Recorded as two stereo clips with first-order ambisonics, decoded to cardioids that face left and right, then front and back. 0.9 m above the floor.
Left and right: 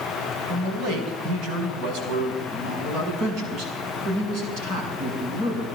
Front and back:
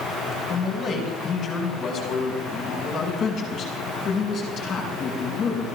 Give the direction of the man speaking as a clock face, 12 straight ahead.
2 o'clock.